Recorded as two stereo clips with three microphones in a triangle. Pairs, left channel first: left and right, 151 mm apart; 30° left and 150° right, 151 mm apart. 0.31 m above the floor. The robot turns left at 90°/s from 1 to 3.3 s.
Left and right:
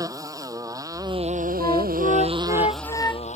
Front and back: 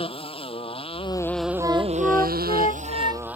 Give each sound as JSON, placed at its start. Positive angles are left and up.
{"t": 0.0, "sound": "a motorcycle", "azimuth_deg": -25}
{"t": 1.6, "sound": "a flute", "azimuth_deg": 155}